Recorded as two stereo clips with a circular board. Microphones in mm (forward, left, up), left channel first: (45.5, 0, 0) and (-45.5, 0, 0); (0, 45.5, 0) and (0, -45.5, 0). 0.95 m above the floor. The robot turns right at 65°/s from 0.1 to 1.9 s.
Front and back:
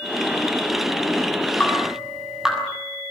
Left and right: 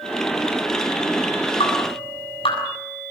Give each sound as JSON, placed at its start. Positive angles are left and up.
{"t": 1.6, "sound": "dripping", "azimuth_deg": 75, "distance_m": 7.0}